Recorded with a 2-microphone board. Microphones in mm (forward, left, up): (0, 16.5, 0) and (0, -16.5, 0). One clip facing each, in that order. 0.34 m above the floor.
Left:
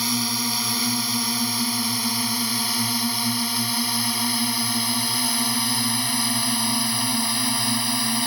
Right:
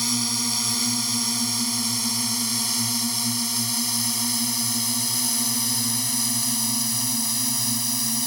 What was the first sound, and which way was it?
A drone, 15° left (ahead or behind).